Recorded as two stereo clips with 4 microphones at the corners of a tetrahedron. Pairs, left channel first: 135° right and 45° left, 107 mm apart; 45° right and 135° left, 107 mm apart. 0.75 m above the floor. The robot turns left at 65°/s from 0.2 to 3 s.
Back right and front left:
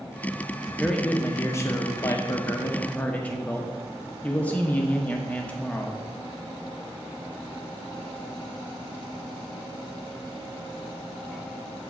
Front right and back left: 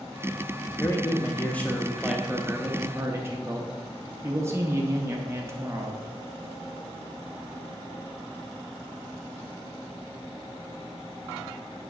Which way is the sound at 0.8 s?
55° right.